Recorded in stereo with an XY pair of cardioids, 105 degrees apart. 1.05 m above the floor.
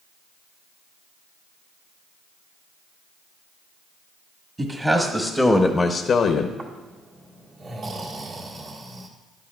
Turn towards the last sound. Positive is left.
turn(degrees=-50)